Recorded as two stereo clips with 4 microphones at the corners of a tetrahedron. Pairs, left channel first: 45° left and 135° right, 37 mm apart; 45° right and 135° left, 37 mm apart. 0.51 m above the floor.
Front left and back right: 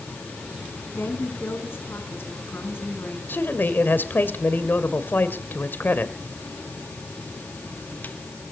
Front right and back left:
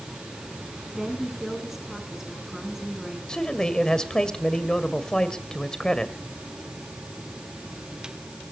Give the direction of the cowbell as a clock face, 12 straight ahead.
No cowbell in this recording.